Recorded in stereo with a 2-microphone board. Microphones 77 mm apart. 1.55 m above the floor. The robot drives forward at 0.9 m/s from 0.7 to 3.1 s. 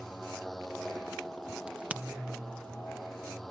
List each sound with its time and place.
0.0 s a motorcycle: 5° left (ahead or behind)
1.7 s a crack: 15° right (ahead or behind); by 2.0 s 20° right (ahead or behind)